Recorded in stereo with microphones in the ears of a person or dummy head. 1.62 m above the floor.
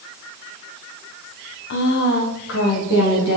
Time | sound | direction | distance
1.7 | a woman speaking | 60° left (ahead or behind) | 0.8 m